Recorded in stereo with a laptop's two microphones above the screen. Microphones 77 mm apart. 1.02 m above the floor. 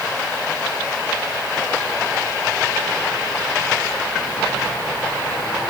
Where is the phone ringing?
No phone ringing in this recording.